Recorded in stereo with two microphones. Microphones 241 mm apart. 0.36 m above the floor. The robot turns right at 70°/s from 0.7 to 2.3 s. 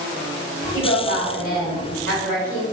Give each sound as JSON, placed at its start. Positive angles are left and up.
{"t": 0.7, "sound": "a woman speaking", "azimuth_deg": 80, "distance_m": 1.6}